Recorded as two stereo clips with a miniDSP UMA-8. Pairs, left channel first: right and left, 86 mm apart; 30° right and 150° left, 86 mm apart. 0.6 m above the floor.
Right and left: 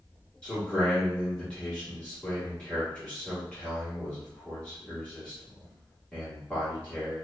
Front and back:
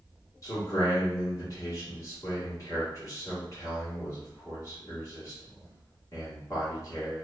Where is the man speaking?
20° right, 1.3 m.